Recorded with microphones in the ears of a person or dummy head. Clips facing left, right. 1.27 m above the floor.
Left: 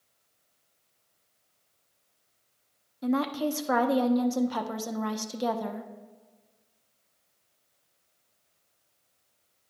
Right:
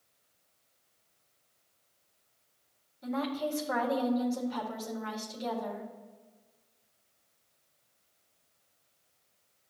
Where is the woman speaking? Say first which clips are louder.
Left 6 dB; 65° left (ahead or behind), 0.9 m.